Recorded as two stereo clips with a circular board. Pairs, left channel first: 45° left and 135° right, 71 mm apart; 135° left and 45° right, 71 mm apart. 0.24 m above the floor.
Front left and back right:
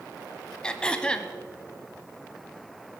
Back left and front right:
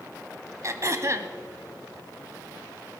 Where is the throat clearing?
25° right, 0.8 m.